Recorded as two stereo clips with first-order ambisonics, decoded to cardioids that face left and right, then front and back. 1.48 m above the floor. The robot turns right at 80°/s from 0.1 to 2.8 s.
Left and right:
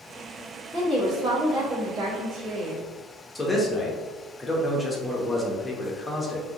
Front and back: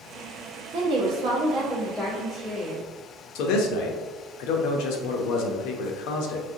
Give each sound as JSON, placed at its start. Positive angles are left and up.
{"t": 0.7, "sound": "a woman speaking", "azimuth_deg": 150, "distance_m": 1.1}
{"t": 3.4, "sound": "a man speaking", "azimuth_deg": 5, "distance_m": 0.7}